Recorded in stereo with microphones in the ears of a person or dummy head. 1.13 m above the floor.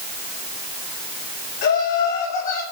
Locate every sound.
1.6 s laughter: 55° left (ahead or behind), 6 m; by 2.6 s 45° left (ahead or behind), 5.5 m